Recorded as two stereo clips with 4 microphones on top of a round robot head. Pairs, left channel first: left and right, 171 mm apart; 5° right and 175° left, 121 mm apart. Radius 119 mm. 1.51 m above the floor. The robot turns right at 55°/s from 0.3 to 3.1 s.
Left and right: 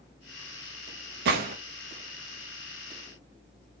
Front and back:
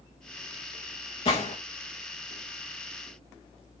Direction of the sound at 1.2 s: 55° right.